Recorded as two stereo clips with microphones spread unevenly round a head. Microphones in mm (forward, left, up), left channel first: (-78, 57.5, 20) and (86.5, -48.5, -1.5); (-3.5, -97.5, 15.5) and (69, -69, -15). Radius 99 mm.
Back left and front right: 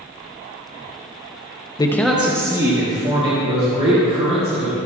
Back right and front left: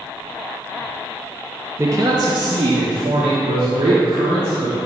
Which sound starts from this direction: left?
A man speaking, at 1.8 s.